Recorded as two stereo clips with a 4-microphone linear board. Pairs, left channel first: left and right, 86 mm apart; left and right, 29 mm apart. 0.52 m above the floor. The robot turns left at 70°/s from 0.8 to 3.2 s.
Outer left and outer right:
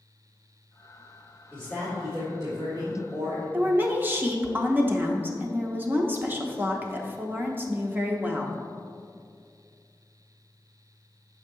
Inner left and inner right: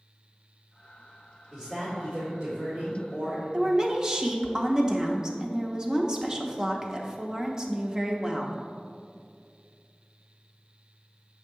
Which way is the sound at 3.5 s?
20° right (ahead or behind).